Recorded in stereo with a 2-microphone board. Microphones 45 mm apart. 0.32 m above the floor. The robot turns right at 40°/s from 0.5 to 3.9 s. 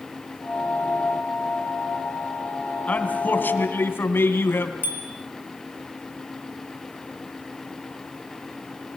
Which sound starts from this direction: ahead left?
A man speaking, at 2.9 s.